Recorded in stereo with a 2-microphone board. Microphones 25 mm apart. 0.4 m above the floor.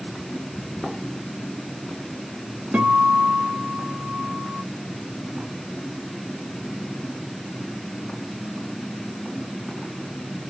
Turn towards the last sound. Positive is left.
turn(degrees=-90)